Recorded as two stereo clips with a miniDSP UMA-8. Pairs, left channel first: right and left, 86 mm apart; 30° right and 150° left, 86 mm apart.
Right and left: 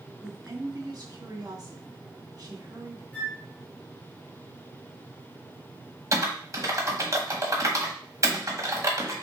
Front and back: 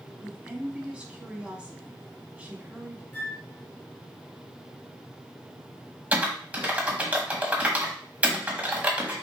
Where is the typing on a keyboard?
85° left, 1.3 m.